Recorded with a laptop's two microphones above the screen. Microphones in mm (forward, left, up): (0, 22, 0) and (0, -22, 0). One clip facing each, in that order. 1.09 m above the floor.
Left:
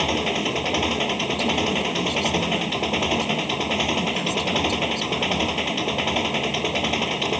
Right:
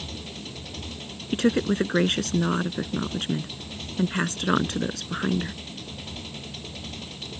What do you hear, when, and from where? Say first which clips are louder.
0.0 s an engine running: left 16 dB; 80° left
1.3 s a woman speaking: right 4 dB; 60° right (ahead or behind)